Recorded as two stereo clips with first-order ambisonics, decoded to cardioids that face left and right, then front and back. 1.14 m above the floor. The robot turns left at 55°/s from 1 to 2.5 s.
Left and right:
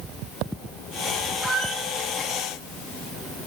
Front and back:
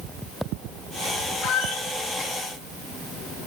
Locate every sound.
1.4 s a squeak: 10° right, 0.8 m; by 1.9 s 30° right, 0.8 m